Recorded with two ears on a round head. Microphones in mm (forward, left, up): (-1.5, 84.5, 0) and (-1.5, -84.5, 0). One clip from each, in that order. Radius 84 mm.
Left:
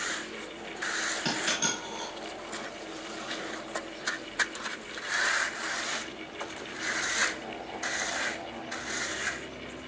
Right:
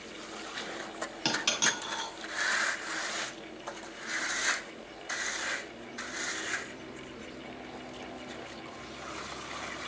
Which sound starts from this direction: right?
A dropped coin, at 1.2 s.